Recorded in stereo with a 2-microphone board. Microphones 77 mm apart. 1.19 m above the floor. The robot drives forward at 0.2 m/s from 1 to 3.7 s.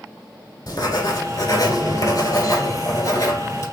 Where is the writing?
55° left (ahead or behind), 1.7 m; by 3.6 s 45° left (ahead or behind), 2 m.